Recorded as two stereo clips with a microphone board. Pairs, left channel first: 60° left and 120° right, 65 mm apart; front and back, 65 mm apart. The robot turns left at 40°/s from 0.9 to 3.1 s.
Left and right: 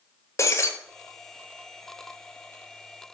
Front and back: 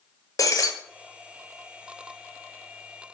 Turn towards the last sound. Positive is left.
turn(degrees=-60)